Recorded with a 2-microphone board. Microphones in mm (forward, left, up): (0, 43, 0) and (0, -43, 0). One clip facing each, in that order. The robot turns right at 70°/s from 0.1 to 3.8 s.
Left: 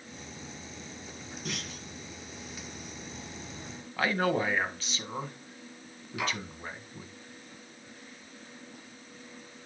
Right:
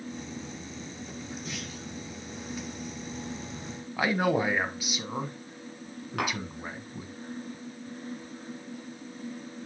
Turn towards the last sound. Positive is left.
turn(degrees=-60)  # may be behind; listen again after turning